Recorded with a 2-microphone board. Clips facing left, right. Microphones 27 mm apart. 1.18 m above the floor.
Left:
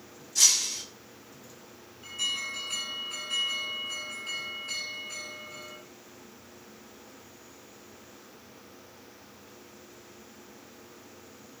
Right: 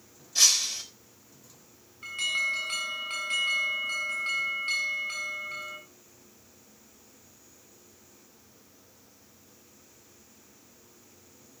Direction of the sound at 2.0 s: 65° right (ahead or behind).